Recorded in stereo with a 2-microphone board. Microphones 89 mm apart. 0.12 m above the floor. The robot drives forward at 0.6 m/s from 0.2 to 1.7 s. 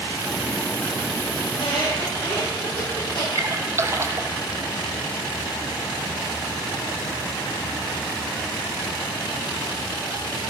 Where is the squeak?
75° left (ahead or behind), 4 m.